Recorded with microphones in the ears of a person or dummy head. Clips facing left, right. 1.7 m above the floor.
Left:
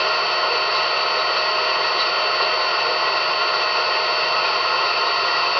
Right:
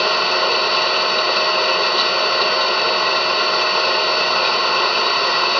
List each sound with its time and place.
0.0 s an engine running: 65° right (ahead or behind), 1.3 m